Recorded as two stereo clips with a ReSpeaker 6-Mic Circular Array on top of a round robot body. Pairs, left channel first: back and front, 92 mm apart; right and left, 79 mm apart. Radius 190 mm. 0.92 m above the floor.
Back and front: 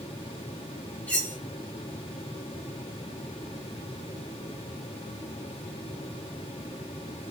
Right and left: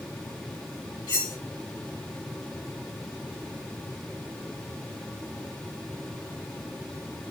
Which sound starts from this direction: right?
Cutlery clinking, at 1.1 s.